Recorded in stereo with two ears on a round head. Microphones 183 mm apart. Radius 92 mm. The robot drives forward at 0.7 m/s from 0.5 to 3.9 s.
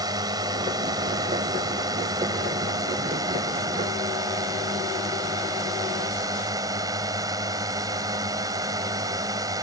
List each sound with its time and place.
0.0 s a drone: 20° right (ahead or behind)